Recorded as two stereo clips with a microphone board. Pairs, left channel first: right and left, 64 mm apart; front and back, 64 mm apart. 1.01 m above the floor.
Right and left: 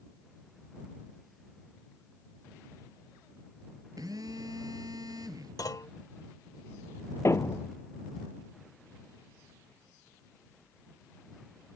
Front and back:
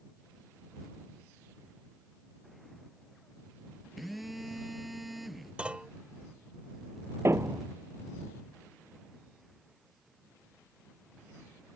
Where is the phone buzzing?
90° left.